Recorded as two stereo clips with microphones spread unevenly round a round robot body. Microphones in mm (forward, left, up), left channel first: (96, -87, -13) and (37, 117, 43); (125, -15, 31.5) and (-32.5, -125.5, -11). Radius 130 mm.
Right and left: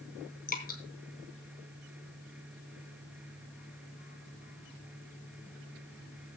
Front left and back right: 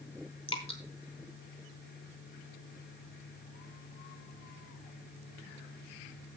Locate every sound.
0.5 s dripping: 25° right, 3 m